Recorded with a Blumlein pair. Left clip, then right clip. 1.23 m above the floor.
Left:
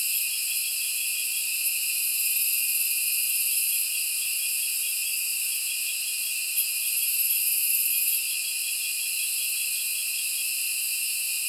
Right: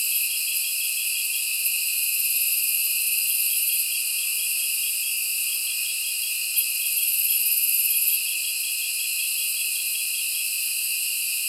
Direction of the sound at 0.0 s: 20° right.